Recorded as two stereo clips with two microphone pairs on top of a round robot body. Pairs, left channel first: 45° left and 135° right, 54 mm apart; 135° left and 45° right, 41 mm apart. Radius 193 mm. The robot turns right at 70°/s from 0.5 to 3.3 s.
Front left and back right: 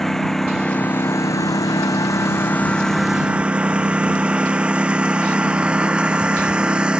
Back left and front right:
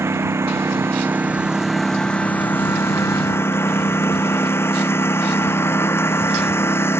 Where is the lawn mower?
40° right; by 7.0 s 150° left.